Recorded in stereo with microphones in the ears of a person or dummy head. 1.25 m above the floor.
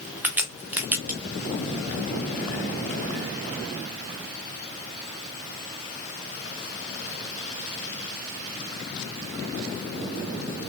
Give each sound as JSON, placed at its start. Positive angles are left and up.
{"t": 0.2, "sound": "a crack", "side_deg": -5, "distance_m": 0.6}